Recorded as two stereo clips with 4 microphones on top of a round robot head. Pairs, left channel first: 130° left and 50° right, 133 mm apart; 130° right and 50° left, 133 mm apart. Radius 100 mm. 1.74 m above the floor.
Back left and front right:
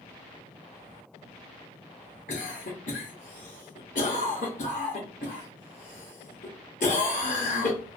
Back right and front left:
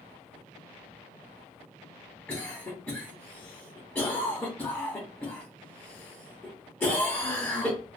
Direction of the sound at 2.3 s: 155° left.